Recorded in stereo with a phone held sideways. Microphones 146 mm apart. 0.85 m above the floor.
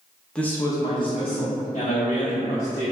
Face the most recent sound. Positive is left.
turn(degrees=50)  # may be behind; listen again after turning